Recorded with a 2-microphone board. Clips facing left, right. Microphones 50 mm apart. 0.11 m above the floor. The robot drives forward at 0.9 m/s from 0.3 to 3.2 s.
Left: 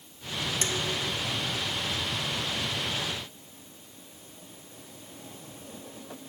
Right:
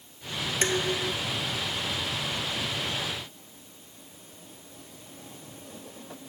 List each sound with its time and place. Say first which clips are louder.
0.6 s dishes clattering: right 7 dB; 35° right (ahead or behind); by 1.2 s 30° right (ahead or behind)